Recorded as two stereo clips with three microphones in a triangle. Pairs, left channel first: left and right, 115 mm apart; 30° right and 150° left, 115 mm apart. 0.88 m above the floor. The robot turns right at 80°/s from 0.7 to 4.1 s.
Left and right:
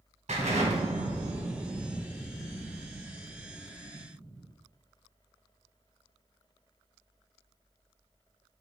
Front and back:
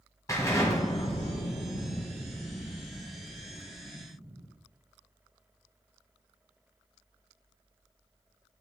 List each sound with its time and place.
0.3 s an explosion: 95° right, 2.5 m; by 4.5 s straight behind, 2.5 m